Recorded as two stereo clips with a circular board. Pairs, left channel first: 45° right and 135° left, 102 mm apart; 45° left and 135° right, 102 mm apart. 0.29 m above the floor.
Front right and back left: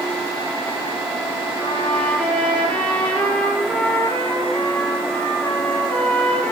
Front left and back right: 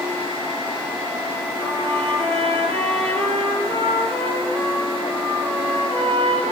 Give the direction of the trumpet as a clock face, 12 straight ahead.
4 o'clock.